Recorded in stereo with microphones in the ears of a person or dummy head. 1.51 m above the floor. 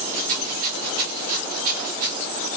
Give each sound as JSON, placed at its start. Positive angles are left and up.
{"t": 0.1, "sound": "a rattle", "side_deg": -45, "distance_m": 2.0}